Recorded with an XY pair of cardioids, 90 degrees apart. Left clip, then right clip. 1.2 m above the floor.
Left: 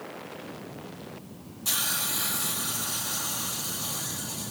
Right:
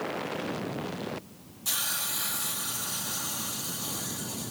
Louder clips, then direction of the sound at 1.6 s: Left 2 dB; 25° left.